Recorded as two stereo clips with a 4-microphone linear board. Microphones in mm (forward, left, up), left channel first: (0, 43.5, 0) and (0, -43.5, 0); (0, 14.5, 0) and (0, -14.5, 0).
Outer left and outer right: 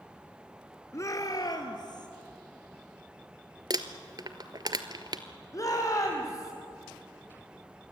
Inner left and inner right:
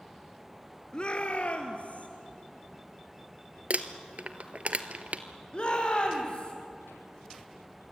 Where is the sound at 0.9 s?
35° left (ahead or behind), 1.5 m; by 2.1 s 60° left (ahead or behind), 2.5 m.